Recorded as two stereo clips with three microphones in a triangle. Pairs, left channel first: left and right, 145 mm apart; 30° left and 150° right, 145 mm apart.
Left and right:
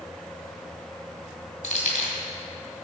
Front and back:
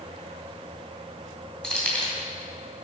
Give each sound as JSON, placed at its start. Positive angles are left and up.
{"t": 1.6, "sound": "keys jangling", "azimuth_deg": 115, "distance_m": 2.5}